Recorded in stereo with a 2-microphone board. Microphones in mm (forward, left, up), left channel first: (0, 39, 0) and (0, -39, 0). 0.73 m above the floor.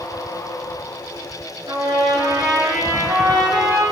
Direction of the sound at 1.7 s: 65° right (ahead or behind).